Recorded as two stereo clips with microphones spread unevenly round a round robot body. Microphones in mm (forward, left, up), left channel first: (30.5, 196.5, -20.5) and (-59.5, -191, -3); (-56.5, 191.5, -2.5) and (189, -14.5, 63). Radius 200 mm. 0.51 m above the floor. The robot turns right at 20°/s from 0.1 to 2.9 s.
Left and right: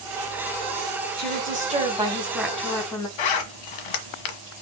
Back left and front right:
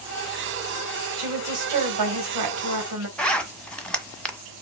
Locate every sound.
1.2 s a woman speaking: 40° right, 3.5 m; by 3.1 s 5° right, 3.5 m
3.2 s a zipper: 55° left, 1.4 m